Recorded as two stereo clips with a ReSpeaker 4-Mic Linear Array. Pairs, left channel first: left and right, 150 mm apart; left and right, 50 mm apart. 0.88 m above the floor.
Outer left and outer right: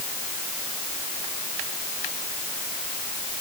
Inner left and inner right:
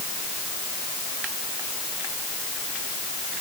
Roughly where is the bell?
No bell in this recording.